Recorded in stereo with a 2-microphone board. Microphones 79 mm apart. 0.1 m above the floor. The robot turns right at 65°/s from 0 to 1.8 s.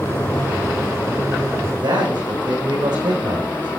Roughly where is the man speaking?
Right.